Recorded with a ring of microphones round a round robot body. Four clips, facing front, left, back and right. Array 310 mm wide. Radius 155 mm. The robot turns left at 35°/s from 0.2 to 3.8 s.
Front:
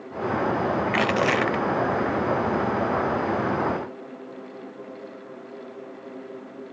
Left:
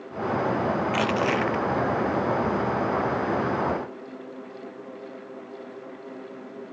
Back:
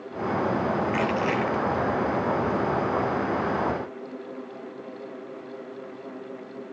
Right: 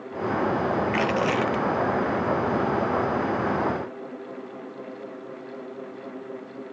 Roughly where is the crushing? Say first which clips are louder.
Even, front 2 dB; ahead.